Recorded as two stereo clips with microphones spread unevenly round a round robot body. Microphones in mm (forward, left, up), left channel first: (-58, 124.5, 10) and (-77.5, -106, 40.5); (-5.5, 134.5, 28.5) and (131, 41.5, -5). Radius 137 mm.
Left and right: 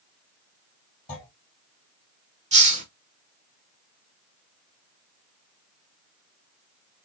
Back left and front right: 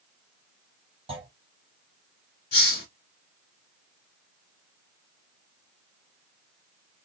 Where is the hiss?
155° right, 2 m.